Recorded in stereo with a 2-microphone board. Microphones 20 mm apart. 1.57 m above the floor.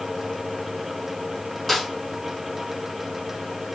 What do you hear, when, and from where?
1.7 s a snare drum: 10° left (ahead or behind), 1.4 m